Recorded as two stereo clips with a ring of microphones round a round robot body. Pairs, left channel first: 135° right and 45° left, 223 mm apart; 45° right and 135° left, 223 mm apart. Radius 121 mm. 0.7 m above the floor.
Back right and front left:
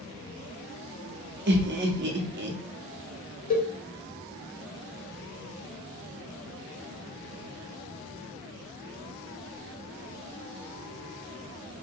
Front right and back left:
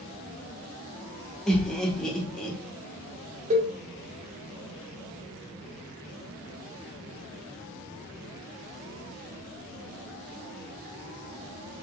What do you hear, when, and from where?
1.5 s laughter: 40° left, 0.7 m
3.5 s a cowbell: 175° right, 0.8 m